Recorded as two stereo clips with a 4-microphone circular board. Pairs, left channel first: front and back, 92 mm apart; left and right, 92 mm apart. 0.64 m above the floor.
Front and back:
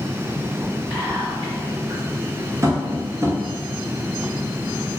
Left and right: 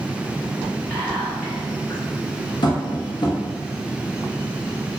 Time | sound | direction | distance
0.9 | whispering | 175° left | 1.7 m
2.6 | tapping | 125° left | 0.6 m